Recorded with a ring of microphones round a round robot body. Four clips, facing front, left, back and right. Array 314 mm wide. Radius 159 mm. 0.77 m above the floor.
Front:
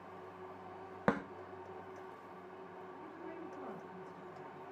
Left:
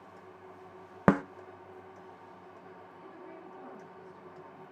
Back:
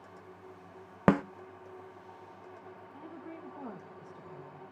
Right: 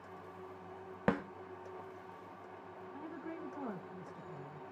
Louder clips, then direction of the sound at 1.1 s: Left 9 dB, back 9 dB; 135° left.